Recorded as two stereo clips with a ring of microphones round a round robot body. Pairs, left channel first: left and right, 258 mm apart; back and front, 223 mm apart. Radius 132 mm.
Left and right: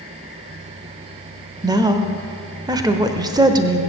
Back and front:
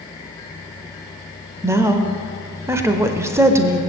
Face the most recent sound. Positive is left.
turn(degrees=-50)